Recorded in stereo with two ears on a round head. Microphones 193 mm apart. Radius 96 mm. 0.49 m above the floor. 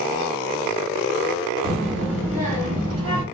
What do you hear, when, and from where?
1.6 s a child speaking: 45° right (ahead or behind), 1.0 m; by 3.2 s 70° right (ahead or behind), 1.5 m